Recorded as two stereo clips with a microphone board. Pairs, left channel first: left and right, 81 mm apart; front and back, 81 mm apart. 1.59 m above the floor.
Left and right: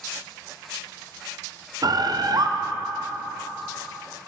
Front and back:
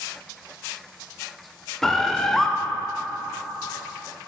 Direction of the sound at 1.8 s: 85° right.